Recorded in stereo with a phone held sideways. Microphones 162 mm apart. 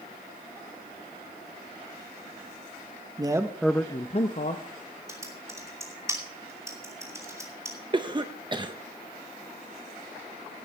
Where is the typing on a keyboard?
15° right (ahead or behind), 2.5 m.